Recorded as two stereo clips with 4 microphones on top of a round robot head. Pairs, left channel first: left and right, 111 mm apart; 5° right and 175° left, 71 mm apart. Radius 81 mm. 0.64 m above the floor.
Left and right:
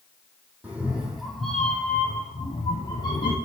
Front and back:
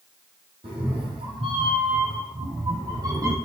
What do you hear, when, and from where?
0.6 s a cat meowing: 165° right, 3.5 m; by 3.4 s 135° left, 3.5 m